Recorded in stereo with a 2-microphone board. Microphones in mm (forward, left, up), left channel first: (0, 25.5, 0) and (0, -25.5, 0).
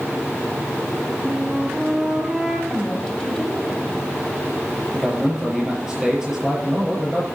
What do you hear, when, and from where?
1.2 s a flute: 5° right (ahead or behind), 1.6 m
2.7 s a woman speaking: 15° left (ahead or behind), 2.5 m
4.9 s a man speaking: 15° right (ahead or behind), 6.5 m